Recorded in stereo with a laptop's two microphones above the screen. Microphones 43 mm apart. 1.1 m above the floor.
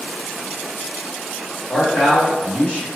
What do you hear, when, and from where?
1.7 s a man speaking: 35° left (ahead or behind), 1.3 m